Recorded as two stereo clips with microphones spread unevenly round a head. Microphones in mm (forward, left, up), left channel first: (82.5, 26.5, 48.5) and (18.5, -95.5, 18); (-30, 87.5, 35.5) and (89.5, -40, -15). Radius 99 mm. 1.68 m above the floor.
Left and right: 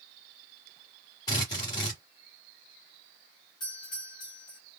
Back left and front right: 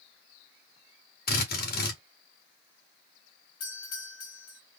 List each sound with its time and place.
1.3 s a drill: 125° left, 1.9 m
3.6 s a doorbell: 130° left, 2.5 m